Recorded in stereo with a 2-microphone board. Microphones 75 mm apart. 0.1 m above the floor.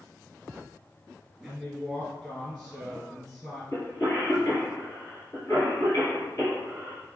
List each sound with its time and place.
1.4 s a woman speaking: 5° left (ahead or behind), 1.6 m
3.7 s a cough: 35° left (ahead or behind), 1.6 m